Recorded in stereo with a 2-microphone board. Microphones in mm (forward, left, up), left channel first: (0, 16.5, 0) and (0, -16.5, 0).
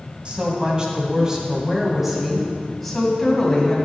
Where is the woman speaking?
35° right (ahead or behind), 2.5 m; by 3.8 s 15° left (ahead or behind), 3 m.